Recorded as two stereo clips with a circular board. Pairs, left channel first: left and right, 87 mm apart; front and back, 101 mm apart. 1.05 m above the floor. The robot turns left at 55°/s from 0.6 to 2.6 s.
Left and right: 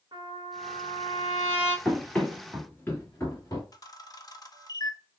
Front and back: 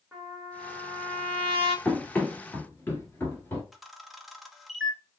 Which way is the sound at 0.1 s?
105° right.